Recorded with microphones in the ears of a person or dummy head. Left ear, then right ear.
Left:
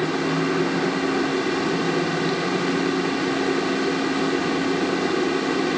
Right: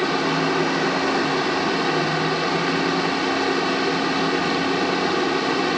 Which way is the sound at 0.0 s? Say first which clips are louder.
Right 2 dB; 35° right (ahead or behind).